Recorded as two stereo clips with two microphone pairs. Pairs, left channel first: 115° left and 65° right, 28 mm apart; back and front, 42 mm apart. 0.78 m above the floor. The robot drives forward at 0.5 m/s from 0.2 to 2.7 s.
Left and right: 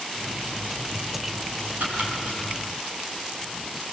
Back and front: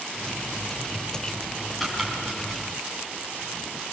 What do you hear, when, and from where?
1.8 s chopping: 90° right, 6.5 m; by 3.9 s 95° right, 6.5 m